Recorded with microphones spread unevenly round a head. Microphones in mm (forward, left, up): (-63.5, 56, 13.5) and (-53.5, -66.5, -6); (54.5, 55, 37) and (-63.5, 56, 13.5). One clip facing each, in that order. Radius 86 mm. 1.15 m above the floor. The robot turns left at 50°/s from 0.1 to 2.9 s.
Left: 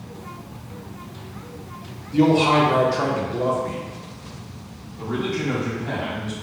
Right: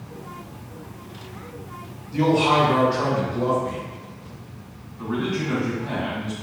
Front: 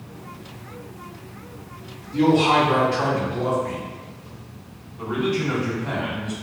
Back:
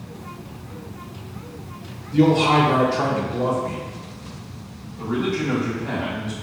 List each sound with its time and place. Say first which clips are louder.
2.1 s a man speaking: left 2 dB, back 1 dB; 165° left, 1.0 m; by 3.8 s 130° left, 1.0 m
5.0 s a man speaking: even, even; 130° left, 1.8 m